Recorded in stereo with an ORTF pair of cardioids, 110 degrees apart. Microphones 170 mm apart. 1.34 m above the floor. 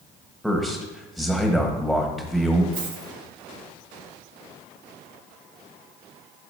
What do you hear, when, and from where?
0.4 s a man speaking: straight ahead, 1.4 m
2.7 s a dropped coin: 70° right, 2.5 m